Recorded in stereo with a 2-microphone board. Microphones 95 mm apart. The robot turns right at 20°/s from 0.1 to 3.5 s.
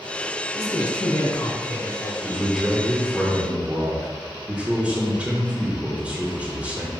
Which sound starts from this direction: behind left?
A man speaking, at 0.5 s.